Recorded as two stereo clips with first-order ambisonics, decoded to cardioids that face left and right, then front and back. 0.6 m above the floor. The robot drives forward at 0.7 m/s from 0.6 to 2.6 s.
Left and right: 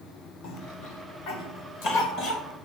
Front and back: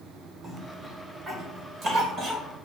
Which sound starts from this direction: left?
A cough, at 0.4 s.